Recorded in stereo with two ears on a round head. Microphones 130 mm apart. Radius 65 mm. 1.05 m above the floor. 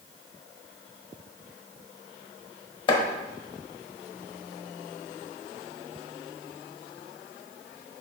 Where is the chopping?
35° left (ahead or behind), 1.0 m.